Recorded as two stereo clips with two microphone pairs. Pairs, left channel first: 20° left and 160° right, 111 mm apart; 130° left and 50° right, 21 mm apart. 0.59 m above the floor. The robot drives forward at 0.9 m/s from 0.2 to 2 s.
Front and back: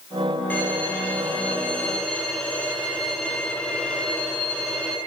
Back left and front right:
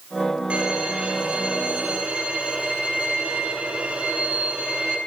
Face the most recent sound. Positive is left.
turn(degrees=-60)